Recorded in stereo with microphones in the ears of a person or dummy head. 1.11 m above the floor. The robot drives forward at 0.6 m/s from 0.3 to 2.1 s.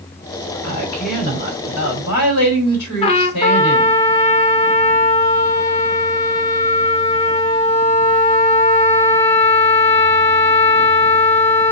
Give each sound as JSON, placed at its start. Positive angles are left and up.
{"t": 0.6, "sound": "a woman speaking", "side_deg": 65, "distance_m": 2.0}
{"t": 3.0, "sound": "a trumpet", "side_deg": 30, "distance_m": 0.5}